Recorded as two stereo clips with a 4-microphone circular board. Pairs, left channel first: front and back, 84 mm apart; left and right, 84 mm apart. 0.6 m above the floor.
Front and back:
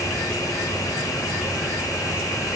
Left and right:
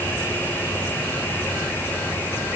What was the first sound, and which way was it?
Only background noise.